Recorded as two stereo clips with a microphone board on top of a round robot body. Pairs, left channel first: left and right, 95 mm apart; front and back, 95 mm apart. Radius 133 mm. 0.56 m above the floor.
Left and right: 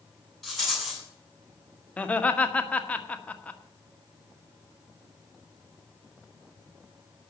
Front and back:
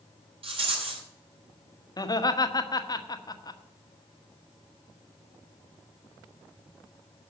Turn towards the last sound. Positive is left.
turn(degrees=20)